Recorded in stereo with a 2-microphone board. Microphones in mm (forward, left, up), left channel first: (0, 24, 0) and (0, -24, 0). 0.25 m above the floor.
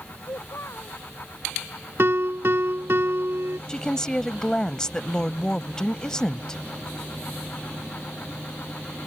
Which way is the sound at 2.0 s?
55° right (ahead or behind).